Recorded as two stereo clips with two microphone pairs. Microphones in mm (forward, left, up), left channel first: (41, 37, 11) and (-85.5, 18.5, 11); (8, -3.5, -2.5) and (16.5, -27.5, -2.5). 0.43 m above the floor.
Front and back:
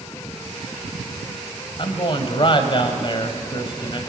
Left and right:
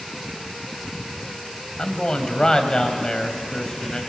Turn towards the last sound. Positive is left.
turn(degrees=50)